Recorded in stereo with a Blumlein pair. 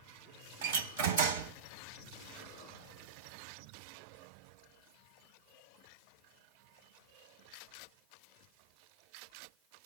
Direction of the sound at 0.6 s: 60° right.